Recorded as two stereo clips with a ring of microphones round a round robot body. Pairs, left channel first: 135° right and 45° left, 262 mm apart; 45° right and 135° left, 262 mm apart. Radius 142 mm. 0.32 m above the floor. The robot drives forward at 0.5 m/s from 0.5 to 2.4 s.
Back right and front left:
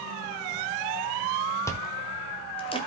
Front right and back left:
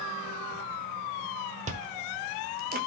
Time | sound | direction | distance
1.7 | chewing | 155° left | 1.2 m